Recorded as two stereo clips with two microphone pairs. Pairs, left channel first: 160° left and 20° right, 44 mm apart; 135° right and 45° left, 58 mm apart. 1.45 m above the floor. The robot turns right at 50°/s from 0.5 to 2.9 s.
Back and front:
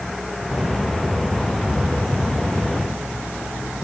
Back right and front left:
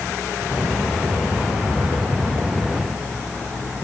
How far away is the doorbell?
No doorbell in this recording.